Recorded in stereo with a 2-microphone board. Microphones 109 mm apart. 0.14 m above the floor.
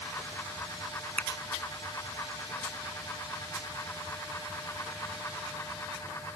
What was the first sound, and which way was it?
A finger snap, 15° left (ahead or behind).